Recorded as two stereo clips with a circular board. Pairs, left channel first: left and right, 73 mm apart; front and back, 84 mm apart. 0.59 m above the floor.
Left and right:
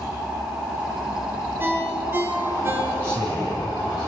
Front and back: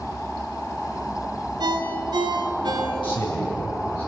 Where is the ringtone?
150° right, 4 m.